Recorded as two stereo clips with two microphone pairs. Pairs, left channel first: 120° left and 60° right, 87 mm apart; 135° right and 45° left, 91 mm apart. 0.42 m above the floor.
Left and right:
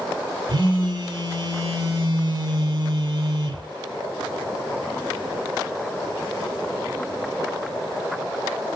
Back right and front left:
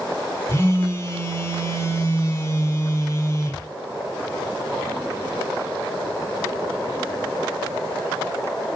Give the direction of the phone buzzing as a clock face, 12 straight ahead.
3 o'clock.